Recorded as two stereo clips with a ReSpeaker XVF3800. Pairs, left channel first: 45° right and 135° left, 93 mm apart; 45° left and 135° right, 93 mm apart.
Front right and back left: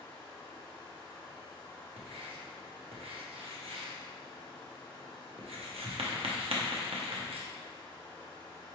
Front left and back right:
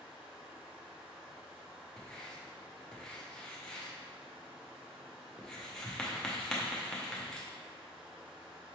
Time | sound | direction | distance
0.0 | running water | 70° right | 1.3 m
2.0 | writing | 130° left | 0.8 m